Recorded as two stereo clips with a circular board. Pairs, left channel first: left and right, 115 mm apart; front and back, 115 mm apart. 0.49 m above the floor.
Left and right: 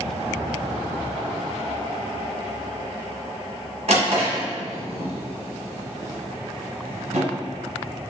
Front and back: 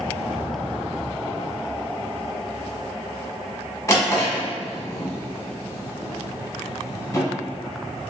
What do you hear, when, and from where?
3.9 s a drawer: 70° right, 1.3 m